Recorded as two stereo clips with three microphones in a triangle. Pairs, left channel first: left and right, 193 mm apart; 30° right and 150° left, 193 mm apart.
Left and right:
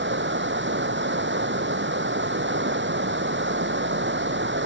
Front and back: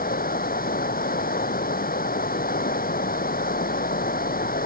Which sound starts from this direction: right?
Running water, at 0.0 s.